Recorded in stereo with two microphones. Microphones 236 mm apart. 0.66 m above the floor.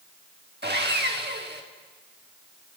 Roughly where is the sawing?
Right.